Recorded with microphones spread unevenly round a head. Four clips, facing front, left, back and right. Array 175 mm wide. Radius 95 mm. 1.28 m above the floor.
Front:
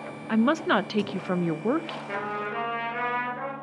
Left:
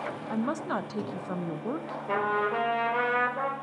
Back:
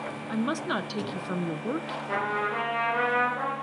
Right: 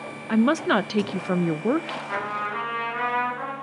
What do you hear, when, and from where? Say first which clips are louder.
0.3 s a woman speaking: right 11 dB, front 7 dB; 70° right, 0.5 m
2.1 s a trumpet: left 3 dB, back 4 dB; 85° left, 4.5 m